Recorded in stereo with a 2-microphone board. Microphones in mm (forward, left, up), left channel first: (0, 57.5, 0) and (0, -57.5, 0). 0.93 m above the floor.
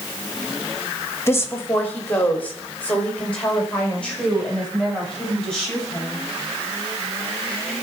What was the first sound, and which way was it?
A woman speaking, 20° left (ahead or behind).